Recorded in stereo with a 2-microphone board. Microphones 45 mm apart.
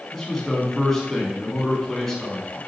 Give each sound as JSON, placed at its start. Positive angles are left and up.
{"t": 0.1, "sound": "a man speaking", "side_deg": 10, "distance_m": 1.1}